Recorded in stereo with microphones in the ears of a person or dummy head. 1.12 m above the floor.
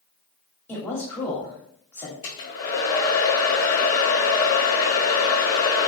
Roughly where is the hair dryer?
Left.